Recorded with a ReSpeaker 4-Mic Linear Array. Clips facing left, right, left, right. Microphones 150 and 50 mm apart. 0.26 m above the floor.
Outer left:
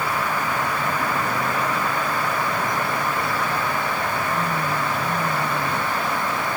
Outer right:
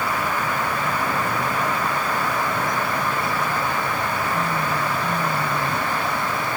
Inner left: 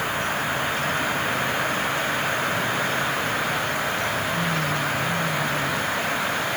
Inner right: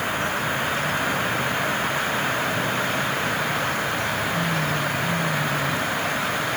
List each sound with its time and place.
Only background noise.